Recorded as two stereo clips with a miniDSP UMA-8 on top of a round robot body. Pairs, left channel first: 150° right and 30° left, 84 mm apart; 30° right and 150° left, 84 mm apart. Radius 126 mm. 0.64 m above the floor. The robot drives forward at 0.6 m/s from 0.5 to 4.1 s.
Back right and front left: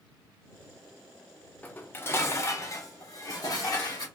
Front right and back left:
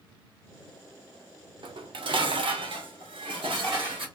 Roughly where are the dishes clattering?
Behind left.